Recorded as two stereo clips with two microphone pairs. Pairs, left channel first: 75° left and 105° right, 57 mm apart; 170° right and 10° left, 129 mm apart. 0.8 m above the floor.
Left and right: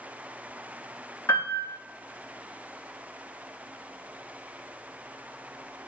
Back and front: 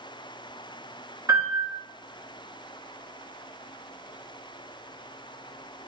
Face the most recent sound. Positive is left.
turn(degrees=70)